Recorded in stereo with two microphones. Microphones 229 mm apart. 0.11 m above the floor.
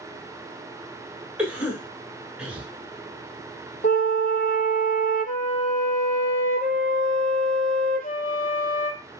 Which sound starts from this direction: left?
A flute, at 3.8 s.